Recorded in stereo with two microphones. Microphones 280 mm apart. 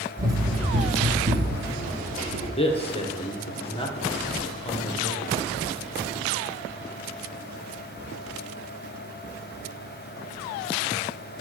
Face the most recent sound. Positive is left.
turn(degrees=20)  # may be behind; listen again after turning